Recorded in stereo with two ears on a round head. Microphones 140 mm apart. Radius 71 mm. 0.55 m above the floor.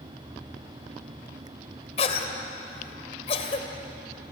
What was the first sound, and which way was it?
A cough, 40° left (ahead or behind).